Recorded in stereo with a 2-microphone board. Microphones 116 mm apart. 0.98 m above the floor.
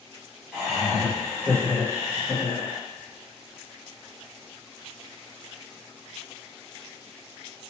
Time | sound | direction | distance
0.5 | laughter | 5° right (ahead or behind) | 1.3 m